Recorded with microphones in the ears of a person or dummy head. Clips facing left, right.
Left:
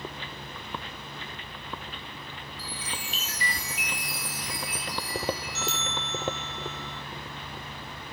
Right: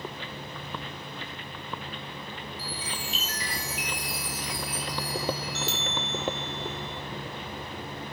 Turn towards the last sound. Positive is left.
turn(degrees=-25)  # may be behind; listen again after turning